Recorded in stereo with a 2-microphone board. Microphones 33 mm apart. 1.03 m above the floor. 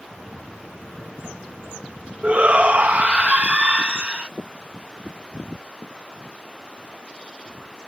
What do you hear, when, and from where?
0.1 s footsteps: 40° right (ahead or behind)
2.2 s a shout: 40° right (ahead or behind)